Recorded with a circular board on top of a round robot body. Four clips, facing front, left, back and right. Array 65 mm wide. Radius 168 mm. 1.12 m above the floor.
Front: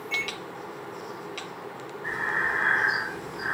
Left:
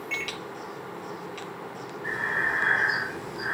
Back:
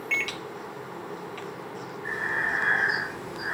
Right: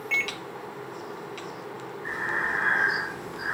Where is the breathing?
40° left, 1.2 m.